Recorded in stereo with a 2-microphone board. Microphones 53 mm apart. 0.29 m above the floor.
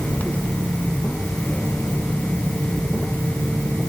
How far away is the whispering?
I don't hear whispering.